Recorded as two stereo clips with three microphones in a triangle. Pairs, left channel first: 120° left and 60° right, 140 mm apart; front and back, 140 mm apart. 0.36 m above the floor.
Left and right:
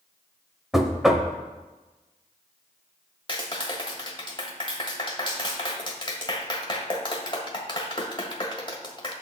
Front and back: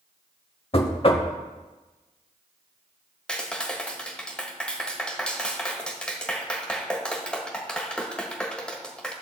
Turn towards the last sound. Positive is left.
turn(degrees=80)